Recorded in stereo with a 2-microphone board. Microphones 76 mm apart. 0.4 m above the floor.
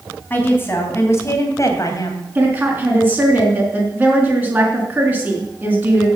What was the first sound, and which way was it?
A woman speaking, 25° left (ahead or behind).